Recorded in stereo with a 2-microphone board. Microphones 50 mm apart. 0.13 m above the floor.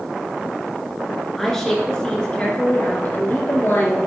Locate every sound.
1.4 s a woman speaking: 5° left (ahead or behind), 1.9 m; by 4.0 s 50° left (ahead or behind), 2.5 m